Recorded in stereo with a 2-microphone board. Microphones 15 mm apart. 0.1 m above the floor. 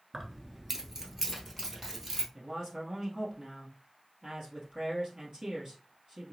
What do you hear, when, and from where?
0.1 s keys jangling: 20° right (ahead or behind), 0.8 m; by 2.2 s 25° right (ahead or behind), 1.7 m
2.3 s a man speaking: 55° right (ahead or behind), 1.9 m